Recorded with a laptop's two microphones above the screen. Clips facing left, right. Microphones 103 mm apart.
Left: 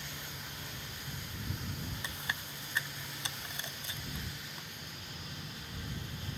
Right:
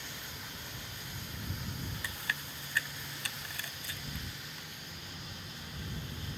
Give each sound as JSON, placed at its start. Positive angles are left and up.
{"t": 2.0, "sound": "chewing", "side_deg": 20}